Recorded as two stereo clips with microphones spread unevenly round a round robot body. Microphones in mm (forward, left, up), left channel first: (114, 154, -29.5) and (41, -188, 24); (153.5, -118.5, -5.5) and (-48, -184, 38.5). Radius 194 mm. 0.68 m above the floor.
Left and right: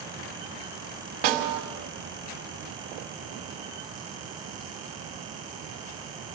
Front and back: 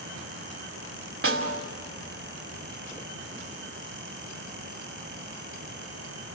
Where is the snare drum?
135° right, 2.5 m.